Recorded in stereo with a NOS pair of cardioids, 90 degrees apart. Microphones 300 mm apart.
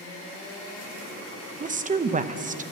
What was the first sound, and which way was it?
A woman speaking, 25° right.